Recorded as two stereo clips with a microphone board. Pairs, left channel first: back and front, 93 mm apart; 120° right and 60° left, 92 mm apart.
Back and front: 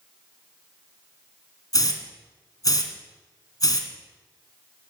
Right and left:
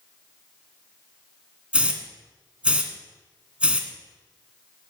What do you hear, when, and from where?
1.7 s a hiss: 135° left, 1.6 m